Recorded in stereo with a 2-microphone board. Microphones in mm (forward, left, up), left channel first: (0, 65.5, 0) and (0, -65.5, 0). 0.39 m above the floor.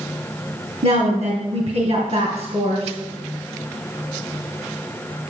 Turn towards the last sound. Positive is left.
turn(degrees=-60)  # may be behind; listen again after turning